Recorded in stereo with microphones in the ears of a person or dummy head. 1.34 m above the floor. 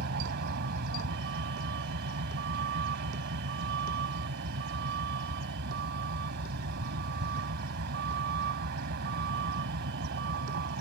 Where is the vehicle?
60° right (ahead or behind).